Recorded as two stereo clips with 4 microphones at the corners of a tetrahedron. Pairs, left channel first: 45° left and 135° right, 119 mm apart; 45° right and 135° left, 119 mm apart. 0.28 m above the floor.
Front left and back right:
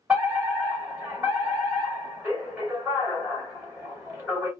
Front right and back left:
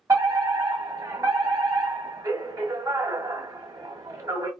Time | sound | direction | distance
0.1 | a fire alarm | 160° left | 2.5 m